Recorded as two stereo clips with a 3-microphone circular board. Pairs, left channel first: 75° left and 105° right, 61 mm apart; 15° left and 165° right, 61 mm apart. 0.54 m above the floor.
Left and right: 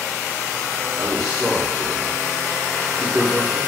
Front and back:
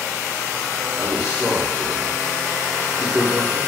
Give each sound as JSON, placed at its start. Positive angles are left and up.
{"t": 1.0, "sound": "a man speaking", "azimuth_deg": 155, "distance_m": 0.8}